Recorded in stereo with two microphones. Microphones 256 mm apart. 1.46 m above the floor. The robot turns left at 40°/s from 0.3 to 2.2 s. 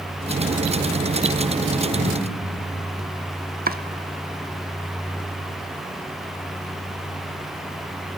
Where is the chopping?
35° right (ahead or behind), 0.8 m.